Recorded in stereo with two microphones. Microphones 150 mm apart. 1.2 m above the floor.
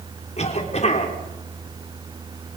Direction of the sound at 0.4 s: 45° left (ahead or behind).